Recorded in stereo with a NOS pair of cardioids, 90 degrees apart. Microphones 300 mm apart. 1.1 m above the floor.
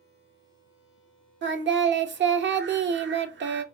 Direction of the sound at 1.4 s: 40° right.